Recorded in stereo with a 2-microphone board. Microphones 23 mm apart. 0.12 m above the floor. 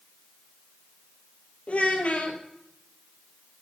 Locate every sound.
1.7 s a child speaking: 60° left (ahead or behind), 2.5 m